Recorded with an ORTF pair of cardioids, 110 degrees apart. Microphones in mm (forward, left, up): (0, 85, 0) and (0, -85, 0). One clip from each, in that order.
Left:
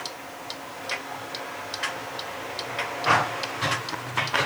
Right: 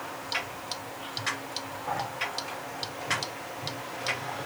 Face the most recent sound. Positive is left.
No sound to turn to.